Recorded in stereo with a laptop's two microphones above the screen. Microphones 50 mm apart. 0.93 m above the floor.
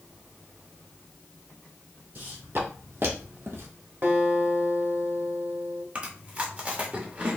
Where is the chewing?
30° right (ahead or behind), 0.8 m.